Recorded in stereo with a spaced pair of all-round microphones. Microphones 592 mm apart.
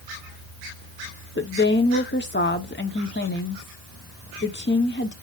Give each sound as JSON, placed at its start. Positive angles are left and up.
{"t": 1.4, "sound": "a woman speaking", "side_deg": 20, "distance_m": 0.9}